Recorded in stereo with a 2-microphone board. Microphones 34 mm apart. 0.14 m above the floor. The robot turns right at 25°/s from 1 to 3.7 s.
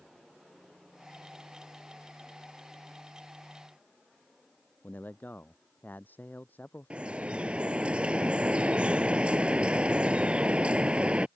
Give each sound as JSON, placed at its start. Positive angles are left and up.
{"t": 4.8, "sound": "a man speaking", "side_deg": 70}
{"t": 6.9, "sound": "dripping", "side_deg": -35}